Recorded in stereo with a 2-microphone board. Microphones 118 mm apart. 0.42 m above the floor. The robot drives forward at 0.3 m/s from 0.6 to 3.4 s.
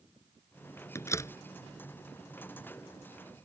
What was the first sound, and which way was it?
A door slam, 25° left (ahead or behind).